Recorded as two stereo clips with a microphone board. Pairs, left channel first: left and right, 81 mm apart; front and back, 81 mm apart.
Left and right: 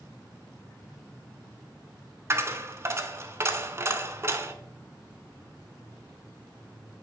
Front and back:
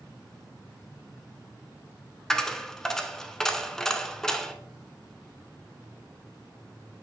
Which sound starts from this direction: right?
A dropped coin, at 2.3 s.